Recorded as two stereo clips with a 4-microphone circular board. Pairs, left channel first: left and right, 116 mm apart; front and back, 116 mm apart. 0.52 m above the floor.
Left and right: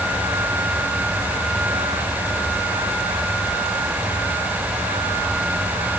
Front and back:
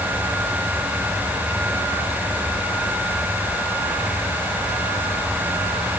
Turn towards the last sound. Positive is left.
No sound to turn to.